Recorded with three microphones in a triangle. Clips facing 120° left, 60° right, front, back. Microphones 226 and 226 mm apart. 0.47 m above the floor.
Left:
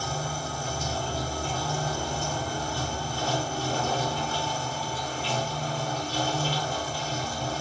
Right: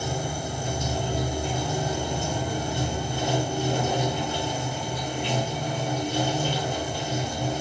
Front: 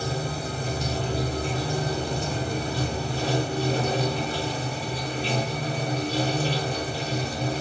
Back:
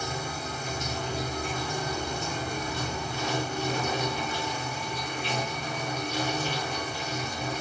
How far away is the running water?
About 0.8 m.